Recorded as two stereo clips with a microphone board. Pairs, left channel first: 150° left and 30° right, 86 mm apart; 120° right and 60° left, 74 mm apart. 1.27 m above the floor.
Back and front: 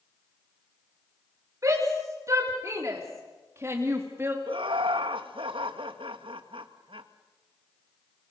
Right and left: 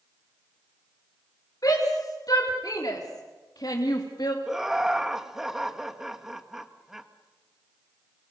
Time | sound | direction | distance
1.6 | a shout | 80° right | 5 m
4.5 | laughter | 25° right | 1.7 m